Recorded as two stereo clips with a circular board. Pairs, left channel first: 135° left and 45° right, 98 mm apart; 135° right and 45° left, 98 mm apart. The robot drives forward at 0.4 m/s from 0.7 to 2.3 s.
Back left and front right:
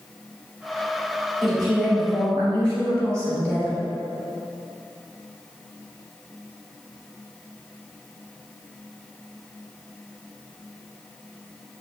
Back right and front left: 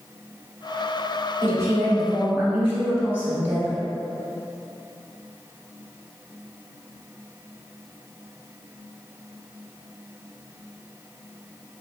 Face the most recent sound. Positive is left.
turn(degrees=85)